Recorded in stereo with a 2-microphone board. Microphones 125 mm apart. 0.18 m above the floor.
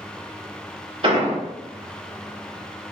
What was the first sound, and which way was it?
An explosion, 45° right (ahead or behind).